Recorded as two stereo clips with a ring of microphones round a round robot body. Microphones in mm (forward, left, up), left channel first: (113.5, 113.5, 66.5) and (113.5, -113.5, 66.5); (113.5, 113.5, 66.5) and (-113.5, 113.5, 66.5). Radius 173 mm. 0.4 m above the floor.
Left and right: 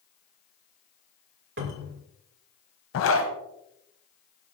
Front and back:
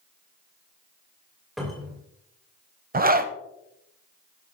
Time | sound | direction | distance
1.6 | a cupboard door | 90° right | 2.5 m
2.9 | a zipper | 125° left | 1.2 m